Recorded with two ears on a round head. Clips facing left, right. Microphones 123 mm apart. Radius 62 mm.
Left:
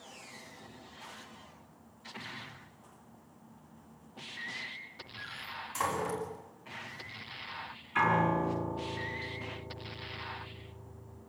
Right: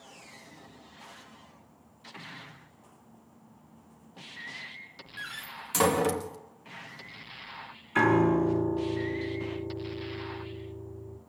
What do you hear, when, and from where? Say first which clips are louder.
5.2 s a door slam: right 1 dB; 85° right, 1.5 m
8.0 s a piano: right 6 dB; 45° right (ahead or behind), 3.5 m